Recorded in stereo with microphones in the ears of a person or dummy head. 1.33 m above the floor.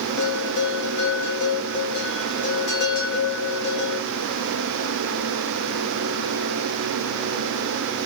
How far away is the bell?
About 2 m.